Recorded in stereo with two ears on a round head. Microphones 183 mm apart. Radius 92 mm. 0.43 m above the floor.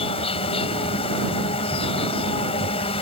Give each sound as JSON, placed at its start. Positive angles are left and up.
{"t": 0.0, "sound": "an insect", "side_deg": 30}